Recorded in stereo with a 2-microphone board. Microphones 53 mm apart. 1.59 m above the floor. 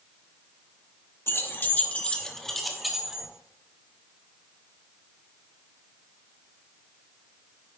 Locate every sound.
1.3 s keys jangling: 50° left (ahead or behind), 1.0 m; by 3.3 s 10° right (ahead or behind), 1.4 m